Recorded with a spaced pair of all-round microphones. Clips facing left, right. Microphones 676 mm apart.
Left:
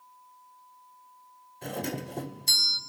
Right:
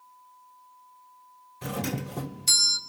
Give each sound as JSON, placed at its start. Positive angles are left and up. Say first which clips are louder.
{"t": 1.6, "sound": "a doorbell", "louder": "right 2 dB", "side_deg": -40, "distance_m": 0.5}